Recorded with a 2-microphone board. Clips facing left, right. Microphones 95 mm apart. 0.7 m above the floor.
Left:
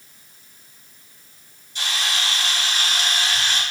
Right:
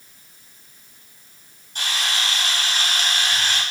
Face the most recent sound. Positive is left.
turn(degrees=-55)  # may be behind; listen again after turning